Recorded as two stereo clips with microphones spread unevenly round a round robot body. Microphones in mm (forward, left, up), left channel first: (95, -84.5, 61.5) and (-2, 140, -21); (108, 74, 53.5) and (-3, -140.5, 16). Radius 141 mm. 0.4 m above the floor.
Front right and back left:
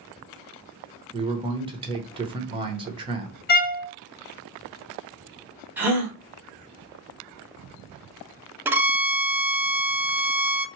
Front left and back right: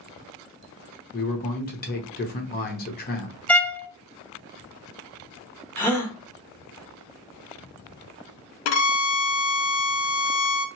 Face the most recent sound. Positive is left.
turn(degrees=35)